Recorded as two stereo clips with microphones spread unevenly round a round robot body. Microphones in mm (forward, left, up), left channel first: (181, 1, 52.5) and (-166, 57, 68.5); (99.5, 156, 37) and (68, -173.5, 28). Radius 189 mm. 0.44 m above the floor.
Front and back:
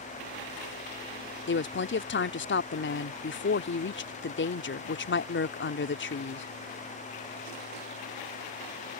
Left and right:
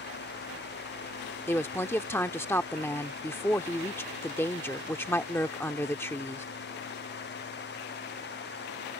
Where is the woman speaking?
5° left.